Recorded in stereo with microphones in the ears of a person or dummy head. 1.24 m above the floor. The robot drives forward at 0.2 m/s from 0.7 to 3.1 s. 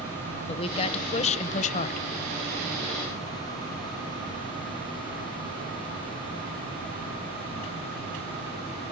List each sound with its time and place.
0.5 s a woman speaking: 30° left (ahead or behind), 0.9 m; by 2.1 s 40° left (ahead or behind), 0.7 m